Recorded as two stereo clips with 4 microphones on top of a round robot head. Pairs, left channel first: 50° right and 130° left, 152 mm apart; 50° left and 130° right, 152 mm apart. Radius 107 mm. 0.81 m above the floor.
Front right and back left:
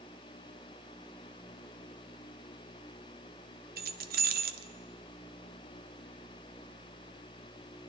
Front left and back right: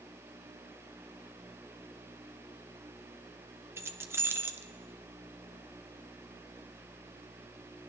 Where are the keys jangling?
155° left, 0.8 m.